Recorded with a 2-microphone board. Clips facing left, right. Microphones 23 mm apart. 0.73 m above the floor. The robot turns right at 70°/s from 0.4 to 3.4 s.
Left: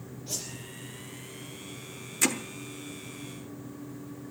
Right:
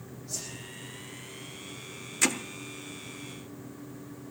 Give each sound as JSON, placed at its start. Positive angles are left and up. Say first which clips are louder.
{"t": 0.3, "sound": "a whoosh", "louder": "left 2 dB", "side_deg": 70, "distance_m": 5.5}
{"t": 2.2, "sound": "hammering", "louder": "even", "side_deg": -5, "distance_m": 1.0}